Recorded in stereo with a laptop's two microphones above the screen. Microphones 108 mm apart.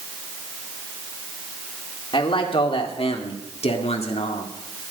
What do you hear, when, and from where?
2.1 s a man speaking: 55° left (ahead or behind), 2 m; by 4.5 s 75° left (ahead or behind), 2.0 m